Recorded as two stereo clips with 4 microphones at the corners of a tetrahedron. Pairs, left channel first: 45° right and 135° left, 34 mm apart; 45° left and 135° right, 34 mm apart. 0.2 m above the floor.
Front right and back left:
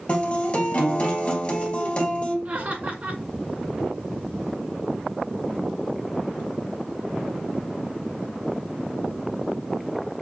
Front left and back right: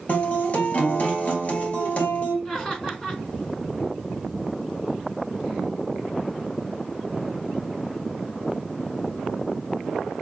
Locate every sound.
0.1 s a guitar: 5° left, 2.5 m
2.5 s laughter: 120° left, 2.5 m